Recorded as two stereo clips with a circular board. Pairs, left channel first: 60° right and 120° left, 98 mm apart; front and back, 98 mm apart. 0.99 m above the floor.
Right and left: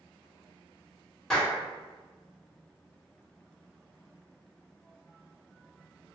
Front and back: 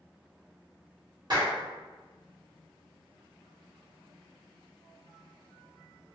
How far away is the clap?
About 1.9 m.